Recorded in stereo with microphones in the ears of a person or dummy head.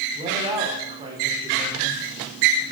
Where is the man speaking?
25° right (ahead or behind), 5 m.